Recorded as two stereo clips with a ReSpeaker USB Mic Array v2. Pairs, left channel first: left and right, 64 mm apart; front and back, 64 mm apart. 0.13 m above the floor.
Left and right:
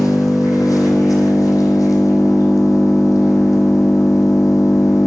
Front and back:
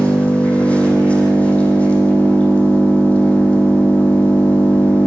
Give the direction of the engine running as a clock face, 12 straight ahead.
10 o'clock.